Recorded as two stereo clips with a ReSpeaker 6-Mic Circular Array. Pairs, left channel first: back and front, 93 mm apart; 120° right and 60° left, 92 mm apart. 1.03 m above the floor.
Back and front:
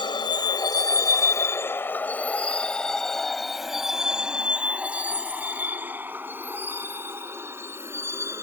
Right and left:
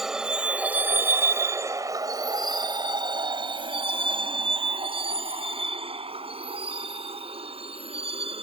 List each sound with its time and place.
0.0 s a vehicle: 145° left; by 8.4 s 60° left